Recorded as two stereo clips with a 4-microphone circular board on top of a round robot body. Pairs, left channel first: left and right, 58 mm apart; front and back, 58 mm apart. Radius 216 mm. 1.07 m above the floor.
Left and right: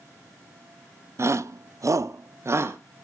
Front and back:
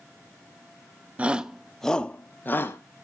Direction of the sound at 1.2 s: 120° right.